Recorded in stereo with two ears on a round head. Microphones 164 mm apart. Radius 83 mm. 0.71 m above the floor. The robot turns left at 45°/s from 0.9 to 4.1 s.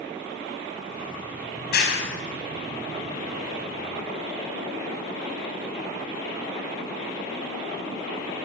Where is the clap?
55° left (ahead or behind), 5.5 m.